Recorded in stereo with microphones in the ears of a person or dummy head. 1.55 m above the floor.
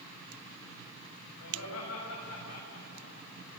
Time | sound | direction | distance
1.4 | laughter | 85° left | 7.5 m